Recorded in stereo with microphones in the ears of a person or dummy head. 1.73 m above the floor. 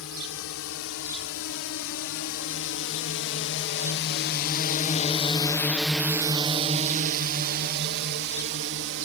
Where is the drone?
80° left; by 9.1 s 65° right (ahead or behind).